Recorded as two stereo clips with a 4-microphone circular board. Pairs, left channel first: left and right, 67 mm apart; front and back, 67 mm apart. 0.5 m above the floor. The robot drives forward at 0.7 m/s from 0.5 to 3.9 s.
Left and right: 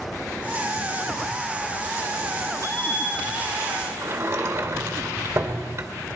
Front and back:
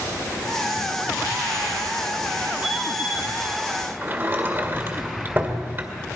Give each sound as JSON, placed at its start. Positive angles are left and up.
{"t": 2.6, "sound": "a bicycle bell", "azimuth_deg": 110, "distance_m": 7.0}
{"t": 4.0, "sound": "a sliding door", "azimuth_deg": -130, "distance_m": 1.9}